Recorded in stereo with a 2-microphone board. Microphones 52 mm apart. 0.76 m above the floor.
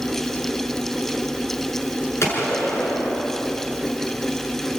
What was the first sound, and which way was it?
A gunshot, 60° left (ahead or behind).